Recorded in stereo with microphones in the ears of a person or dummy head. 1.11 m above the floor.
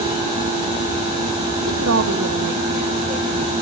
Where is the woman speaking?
75° right (ahead or behind), 1.1 m; by 3.5 s 20° right (ahead or behind), 2.0 m.